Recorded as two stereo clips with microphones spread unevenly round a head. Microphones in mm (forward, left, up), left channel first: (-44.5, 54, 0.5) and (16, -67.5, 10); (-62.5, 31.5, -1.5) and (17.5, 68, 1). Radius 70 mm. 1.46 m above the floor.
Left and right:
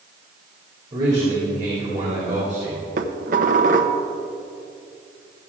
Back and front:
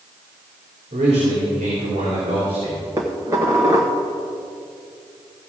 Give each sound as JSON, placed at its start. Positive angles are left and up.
{"t": 0.9, "sound": "a man speaking", "azimuth_deg": 0, "distance_m": 3.0}
{"t": 3.0, "sound": "dishes clattering", "azimuth_deg": -40, "distance_m": 0.9}